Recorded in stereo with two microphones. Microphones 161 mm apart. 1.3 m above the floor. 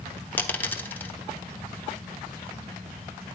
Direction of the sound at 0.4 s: 10° left (ahead or behind).